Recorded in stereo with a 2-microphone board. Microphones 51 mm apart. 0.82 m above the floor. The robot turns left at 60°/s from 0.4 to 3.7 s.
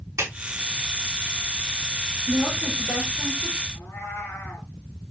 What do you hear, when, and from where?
0.2 s a clap: 80° right, 5 m
2.3 s a woman speaking: 140° left, 4.5 m; by 3.6 s 60° left, 4.5 m
3.7 s a cat meowing: 80° left, 3.5 m